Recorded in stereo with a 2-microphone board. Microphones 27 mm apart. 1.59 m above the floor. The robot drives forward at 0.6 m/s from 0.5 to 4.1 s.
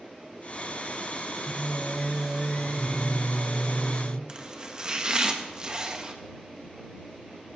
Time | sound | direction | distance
1.5 | singing | 25° right (ahead or behind) | 0.8 m
4.3 | chopping | 30° right (ahead or behind) | 1.1 m